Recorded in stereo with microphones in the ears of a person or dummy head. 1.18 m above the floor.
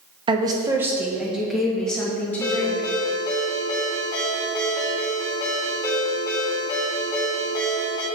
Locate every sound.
0.3 s a woman speaking: 25° right (ahead or behind), 1.1 m; by 2.9 s 10° left (ahead or behind), 2.5 m
2.4 s a ringtone: 15° left (ahead or behind), 2.5 m